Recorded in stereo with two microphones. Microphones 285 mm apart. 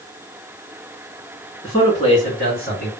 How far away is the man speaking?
About 1.8 m.